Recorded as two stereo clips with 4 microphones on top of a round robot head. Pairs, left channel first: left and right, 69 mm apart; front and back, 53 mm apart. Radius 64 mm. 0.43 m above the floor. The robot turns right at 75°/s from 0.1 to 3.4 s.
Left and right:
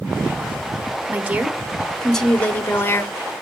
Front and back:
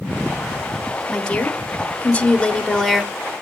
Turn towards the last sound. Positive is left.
turn(degrees=110)